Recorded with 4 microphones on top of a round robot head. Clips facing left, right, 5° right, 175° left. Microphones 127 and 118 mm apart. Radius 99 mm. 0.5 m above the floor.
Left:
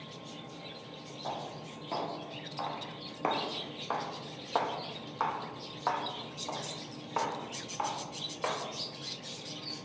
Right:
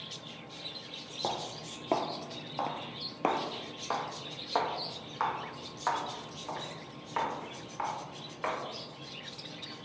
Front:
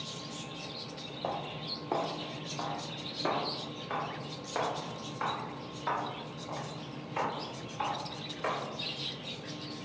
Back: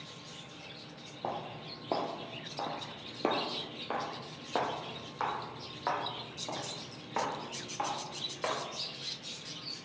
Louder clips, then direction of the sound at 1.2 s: Right 3 dB, front 1 dB; 100° right.